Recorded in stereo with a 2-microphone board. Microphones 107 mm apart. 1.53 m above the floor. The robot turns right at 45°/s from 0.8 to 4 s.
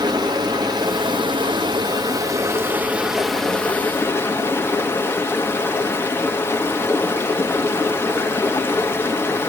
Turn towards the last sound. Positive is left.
turn(degrees=30)